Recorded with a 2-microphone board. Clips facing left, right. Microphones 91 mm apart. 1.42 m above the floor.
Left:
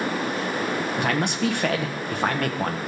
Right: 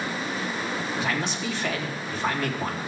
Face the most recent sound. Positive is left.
turn(degrees=60)  # may be behind; listen again after turning